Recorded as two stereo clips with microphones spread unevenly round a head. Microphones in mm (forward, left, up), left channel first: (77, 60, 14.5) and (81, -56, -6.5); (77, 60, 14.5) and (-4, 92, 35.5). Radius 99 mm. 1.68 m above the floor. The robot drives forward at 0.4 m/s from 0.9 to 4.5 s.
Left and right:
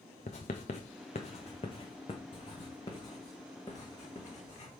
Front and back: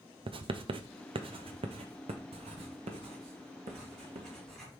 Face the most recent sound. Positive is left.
turn(degrees=170)